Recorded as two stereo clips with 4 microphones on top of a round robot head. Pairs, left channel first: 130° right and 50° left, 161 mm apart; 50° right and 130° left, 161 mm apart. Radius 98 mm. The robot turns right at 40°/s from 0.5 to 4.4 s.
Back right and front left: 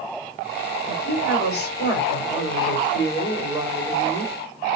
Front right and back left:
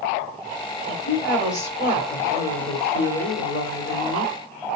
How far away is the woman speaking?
About 4 m.